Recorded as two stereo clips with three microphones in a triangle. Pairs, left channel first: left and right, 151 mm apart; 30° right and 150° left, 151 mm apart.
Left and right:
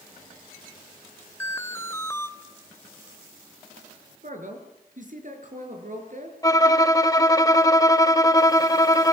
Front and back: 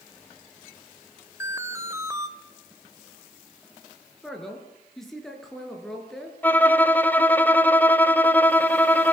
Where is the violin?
40° left, 0.9 m.